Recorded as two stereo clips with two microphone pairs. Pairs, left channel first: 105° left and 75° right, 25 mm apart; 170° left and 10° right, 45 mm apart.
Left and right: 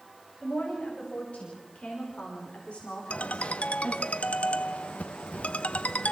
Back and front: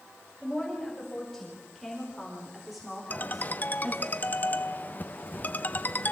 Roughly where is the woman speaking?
Left.